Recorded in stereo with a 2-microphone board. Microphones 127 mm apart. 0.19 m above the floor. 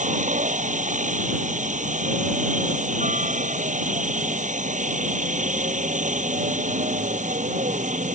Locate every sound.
0.0 s a helicopter: 75° right (ahead or behind)